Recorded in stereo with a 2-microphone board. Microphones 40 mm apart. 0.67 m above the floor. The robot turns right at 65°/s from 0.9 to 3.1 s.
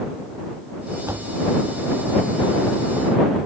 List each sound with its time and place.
1.1 s a door slam: 90° right; by 1.4 s 70° right (ahead or behind)